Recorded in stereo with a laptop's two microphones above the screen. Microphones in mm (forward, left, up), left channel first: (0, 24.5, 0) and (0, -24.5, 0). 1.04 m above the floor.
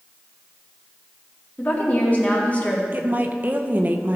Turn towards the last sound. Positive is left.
turn(degrees=-40)  # may be behind; listen again after turning